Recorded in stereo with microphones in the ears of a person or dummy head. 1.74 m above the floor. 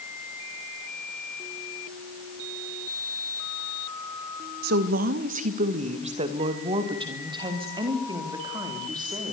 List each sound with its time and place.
4.6 s a woman speaking: 60° right (ahead or behind), 1.4 m; by 9.3 s 25° right (ahead or behind), 4.5 m